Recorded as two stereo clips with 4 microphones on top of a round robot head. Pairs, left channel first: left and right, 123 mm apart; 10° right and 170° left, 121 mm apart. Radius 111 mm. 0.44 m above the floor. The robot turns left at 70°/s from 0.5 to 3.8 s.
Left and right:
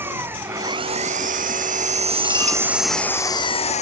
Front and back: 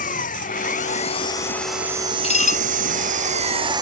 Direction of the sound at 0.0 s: 15° right.